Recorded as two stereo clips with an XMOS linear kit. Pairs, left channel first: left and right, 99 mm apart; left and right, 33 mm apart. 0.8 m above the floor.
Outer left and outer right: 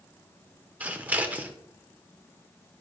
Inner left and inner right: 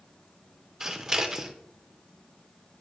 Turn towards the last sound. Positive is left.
turn(degrees=-15)  # may be behind; listen again after turning